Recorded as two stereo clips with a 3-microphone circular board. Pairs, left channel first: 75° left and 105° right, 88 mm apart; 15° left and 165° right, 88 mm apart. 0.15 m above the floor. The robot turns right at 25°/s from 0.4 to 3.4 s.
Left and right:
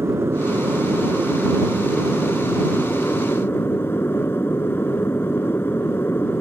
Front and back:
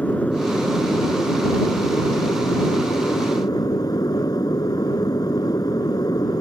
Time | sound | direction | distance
0.0 | an aircraft | 55° right | ?